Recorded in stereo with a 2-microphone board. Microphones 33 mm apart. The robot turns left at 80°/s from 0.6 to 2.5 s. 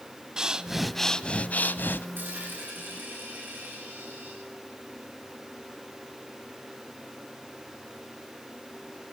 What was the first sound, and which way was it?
Breathing, 160° right.